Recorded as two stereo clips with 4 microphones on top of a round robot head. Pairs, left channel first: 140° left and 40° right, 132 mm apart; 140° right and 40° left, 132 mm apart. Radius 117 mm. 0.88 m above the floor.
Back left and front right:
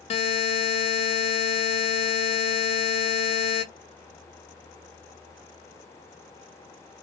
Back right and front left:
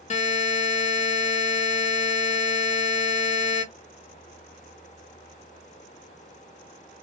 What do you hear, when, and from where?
0.1 s a buzzer: 175° right, 0.7 m